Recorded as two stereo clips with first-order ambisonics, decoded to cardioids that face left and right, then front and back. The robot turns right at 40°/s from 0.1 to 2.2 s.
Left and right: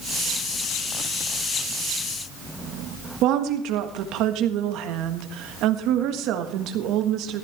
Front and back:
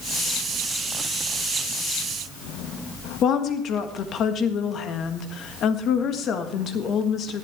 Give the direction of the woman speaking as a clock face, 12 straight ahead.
2 o'clock.